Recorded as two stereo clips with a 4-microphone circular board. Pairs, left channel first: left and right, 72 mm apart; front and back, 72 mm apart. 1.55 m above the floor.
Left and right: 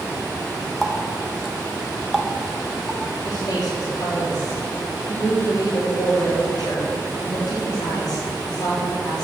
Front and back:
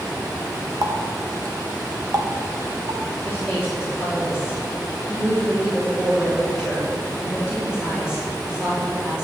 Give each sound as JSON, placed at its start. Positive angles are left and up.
{"t": 0.8, "sound": "a running tap", "azimuth_deg": -175, "distance_m": 1.0}
{"t": 3.2, "sound": "a woman speaking", "azimuth_deg": 100, "distance_m": 3.5}